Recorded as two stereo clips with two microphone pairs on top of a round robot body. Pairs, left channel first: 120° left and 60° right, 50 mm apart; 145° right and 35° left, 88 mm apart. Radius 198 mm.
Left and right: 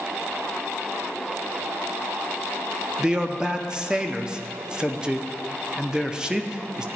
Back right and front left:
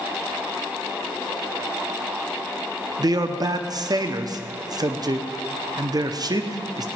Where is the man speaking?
Straight ahead, 0.9 m.